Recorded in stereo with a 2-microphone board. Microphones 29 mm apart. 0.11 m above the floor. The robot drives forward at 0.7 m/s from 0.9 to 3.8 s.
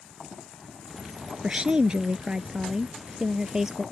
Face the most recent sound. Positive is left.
turn(degrees=-20)  # may be behind; listen again after turning